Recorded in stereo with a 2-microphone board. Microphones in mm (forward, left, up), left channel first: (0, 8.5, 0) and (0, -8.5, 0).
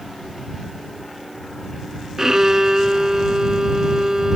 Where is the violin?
30° right (ahead or behind).